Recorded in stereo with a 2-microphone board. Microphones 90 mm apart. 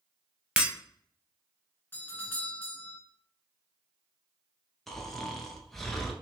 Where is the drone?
No drone in this recording.